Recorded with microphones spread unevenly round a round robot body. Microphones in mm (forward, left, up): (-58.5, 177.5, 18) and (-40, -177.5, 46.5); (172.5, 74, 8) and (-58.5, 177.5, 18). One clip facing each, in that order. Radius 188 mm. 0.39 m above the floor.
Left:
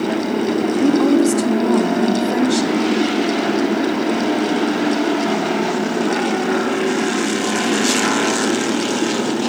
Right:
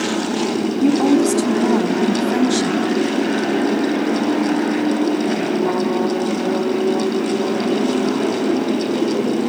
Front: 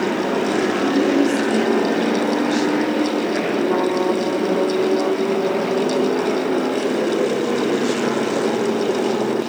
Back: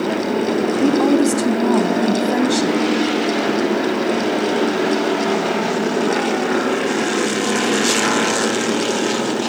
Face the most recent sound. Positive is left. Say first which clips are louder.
# even, back 3 dB
turn(degrees=-170)